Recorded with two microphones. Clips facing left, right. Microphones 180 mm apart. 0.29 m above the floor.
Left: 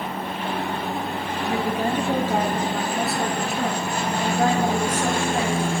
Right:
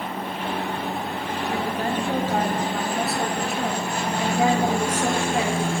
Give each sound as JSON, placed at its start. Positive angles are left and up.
{"t": 1.4, "sound": "a woman speaking", "side_deg": 20, "distance_m": 5.5}